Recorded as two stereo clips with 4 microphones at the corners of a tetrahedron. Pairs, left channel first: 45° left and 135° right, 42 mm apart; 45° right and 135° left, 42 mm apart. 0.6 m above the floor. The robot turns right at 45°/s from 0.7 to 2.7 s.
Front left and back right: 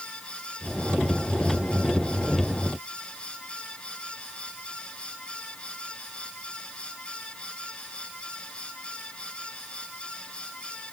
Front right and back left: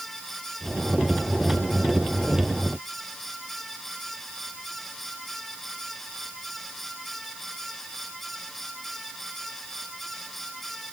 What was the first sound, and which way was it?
Only background noise.